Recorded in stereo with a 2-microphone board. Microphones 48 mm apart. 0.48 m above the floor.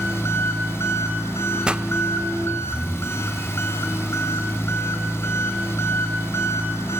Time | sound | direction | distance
0.0 | an engine running | 60° left (ahead or behind) | 4 m
1.6 | a pop | 20° right (ahead or behind) | 0.8 m